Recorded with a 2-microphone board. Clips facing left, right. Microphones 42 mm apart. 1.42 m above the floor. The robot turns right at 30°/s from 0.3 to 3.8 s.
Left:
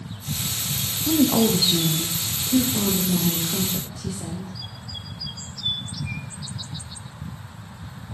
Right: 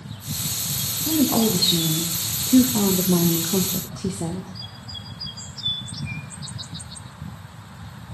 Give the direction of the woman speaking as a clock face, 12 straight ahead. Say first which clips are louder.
Left 1 dB; 6 o'clock.